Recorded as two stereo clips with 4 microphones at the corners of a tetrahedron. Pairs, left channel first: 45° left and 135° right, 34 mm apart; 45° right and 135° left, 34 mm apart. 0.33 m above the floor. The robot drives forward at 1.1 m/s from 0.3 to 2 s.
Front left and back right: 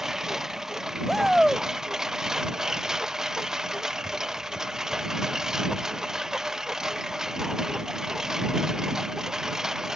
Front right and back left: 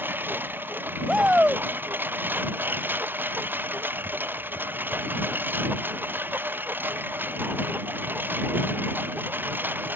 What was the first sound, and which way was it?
A lawn mower, 145° left.